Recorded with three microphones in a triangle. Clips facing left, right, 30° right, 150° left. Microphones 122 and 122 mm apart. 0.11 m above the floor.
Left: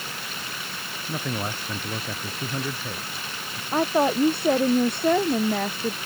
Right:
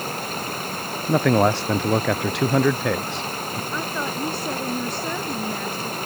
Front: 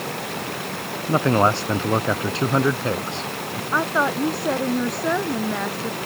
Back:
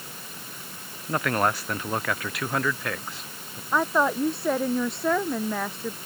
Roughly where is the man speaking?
Right.